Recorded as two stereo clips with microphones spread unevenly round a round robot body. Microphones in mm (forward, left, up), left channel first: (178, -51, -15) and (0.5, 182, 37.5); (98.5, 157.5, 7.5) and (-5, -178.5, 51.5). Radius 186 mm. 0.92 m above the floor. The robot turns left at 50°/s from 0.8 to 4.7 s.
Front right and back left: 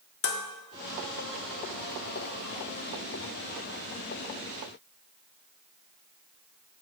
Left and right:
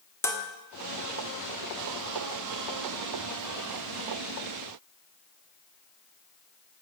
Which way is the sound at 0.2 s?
10° right.